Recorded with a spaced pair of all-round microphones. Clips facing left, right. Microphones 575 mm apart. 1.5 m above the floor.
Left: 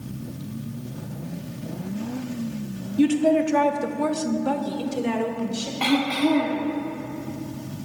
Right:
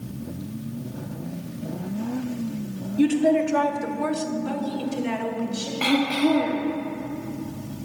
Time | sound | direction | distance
3.0 | a woman speaking | 25° left (ahead or behind) | 1.0 m
5.8 | throat clearing | 25° left (ahead or behind) | 1.5 m